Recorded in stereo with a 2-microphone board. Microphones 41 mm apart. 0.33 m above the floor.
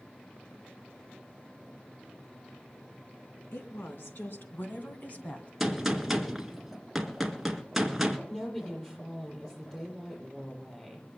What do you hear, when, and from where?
3.5 s a woman speaking: 75° left (ahead or behind), 3.5 m; by 5.5 s 30° left (ahead or behind), 2.5 m
5.6 s a gunshot: 5° right (ahead or behind), 1.7 m
8.3 s a woman speaking: 15° left (ahead or behind), 7.5 m